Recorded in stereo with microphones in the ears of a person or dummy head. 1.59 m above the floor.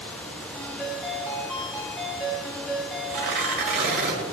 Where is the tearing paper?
55° right (ahead or behind), 1.8 m.